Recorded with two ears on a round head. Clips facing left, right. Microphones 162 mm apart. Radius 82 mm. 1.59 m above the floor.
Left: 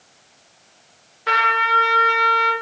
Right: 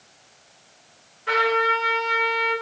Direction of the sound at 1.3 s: 70° left (ahead or behind).